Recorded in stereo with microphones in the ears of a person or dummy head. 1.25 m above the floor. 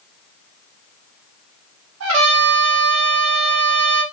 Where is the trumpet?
85° right, 0.9 m.